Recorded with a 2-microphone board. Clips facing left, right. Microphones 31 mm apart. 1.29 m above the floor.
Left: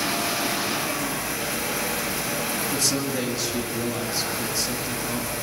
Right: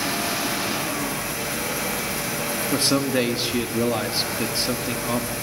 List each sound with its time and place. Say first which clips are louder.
2.7 s a man speaking: right 8 dB; 35° right (ahead or behind), 2 m